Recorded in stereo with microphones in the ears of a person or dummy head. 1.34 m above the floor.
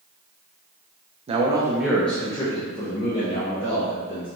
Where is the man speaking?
35° right (ahead or behind), 0.6 m; by 4.3 s 45° left (ahead or behind), 1.7 m.